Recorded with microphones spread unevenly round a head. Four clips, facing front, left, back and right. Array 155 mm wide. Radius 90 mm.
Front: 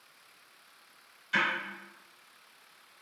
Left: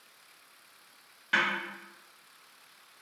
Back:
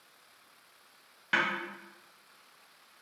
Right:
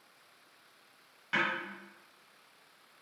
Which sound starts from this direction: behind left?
A snare drum, at 1.3 s.